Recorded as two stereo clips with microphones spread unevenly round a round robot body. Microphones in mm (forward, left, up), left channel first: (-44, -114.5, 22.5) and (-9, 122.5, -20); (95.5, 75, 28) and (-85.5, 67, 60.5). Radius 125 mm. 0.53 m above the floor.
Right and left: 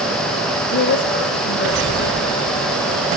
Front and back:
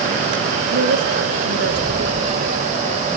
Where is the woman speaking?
145° right, 2.5 m.